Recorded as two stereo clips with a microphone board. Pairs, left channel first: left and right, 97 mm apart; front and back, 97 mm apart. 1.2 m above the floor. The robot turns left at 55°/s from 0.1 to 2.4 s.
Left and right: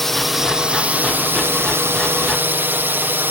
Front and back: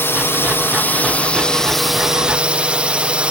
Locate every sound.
0.0 s a drone: 5° left; by 3.3 s 120° right